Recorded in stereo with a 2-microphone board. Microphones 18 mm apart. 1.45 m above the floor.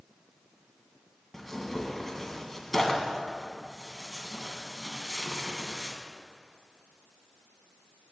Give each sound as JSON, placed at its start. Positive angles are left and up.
{"t": 1.3, "sound": "tearing paper", "side_deg": 5, "distance_m": 1.8}